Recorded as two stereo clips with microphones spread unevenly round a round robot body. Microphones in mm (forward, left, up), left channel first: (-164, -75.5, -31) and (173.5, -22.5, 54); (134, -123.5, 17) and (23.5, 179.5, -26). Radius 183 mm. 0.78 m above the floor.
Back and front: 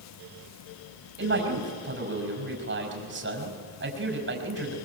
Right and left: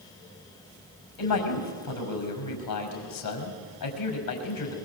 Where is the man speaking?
50° right, 5.5 m.